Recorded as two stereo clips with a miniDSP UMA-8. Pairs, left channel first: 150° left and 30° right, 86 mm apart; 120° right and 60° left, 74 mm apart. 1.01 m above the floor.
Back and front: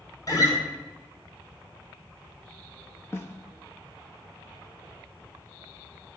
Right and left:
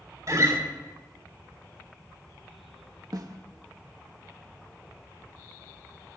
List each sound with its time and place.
0.3 s a guitar: 105° left, 2.5 m
3.1 s a snare drum: 90° left, 1.2 m